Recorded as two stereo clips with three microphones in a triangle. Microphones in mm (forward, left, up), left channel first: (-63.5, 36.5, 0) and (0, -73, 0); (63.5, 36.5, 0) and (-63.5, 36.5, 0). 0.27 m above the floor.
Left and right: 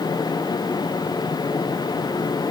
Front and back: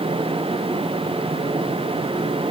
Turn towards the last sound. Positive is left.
No sound to turn to.